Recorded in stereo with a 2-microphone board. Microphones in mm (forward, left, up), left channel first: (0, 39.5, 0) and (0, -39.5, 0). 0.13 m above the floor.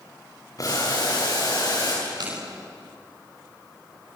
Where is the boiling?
50° left (ahead or behind), 8 m.